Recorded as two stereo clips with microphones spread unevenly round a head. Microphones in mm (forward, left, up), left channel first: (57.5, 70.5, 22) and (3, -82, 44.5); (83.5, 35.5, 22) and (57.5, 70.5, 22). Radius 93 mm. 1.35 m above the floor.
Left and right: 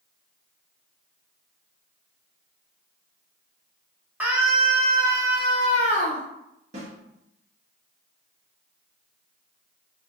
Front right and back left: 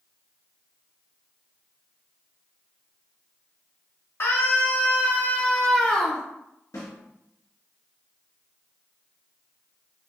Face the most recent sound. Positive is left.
turn(degrees=-60)